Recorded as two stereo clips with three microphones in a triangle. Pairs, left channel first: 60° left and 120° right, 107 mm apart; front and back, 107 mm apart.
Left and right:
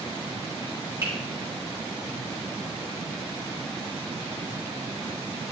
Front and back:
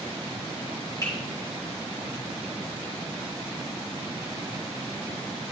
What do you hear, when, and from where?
1.0 s a finger snap: 60° right, 5.5 m